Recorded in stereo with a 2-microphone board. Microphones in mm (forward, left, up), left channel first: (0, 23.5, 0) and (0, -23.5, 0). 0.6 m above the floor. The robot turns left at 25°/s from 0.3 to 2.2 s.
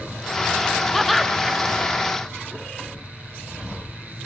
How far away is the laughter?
About 0.7 m.